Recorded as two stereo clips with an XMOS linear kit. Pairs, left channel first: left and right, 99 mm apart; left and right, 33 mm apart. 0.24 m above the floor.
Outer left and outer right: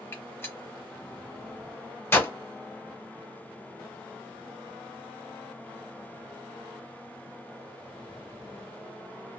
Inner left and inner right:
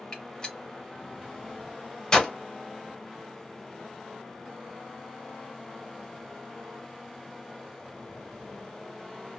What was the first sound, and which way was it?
A gunshot, 25° left (ahead or behind).